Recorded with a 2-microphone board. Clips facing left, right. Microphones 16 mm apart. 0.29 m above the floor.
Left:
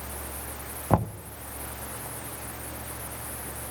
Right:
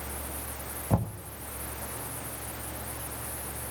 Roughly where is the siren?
No siren in this recording.